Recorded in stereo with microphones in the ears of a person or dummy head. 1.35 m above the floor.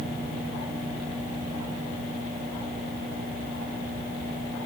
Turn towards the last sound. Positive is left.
No sound to turn to.